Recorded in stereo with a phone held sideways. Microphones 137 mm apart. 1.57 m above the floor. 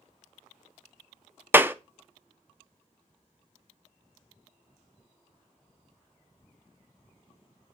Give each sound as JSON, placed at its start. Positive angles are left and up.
{"t": 1.5, "sound": "a clap", "side_deg": -15, "distance_m": 0.6}